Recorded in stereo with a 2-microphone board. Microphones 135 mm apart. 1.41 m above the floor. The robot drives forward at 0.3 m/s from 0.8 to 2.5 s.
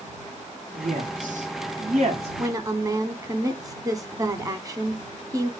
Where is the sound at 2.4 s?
25° right (ahead or behind), 0.7 m.